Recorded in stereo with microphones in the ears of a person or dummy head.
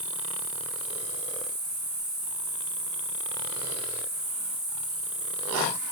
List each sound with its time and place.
0.0 s an insect: 10° right (ahead or behind), 2.0 m